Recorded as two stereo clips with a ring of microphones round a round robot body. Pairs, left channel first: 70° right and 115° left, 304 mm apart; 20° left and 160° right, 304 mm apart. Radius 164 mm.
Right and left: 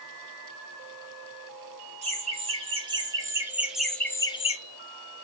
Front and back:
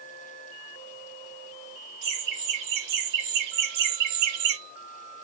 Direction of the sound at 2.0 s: Straight behind.